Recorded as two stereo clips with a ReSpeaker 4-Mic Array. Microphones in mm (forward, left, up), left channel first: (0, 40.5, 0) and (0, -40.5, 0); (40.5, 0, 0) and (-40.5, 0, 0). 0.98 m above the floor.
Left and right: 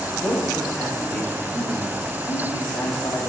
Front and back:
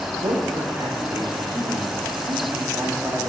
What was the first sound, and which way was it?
A man speaking, 155° left.